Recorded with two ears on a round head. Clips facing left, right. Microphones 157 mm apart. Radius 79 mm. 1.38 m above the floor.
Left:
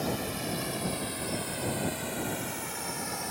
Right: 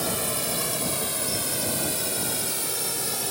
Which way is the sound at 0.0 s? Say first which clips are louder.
Right 2 dB; 60° right (ahead or behind).